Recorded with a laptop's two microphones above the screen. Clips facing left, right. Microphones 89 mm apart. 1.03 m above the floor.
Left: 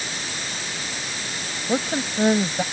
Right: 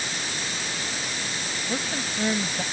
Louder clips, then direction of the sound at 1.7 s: Left 8 dB; 35° left (ahead or behind).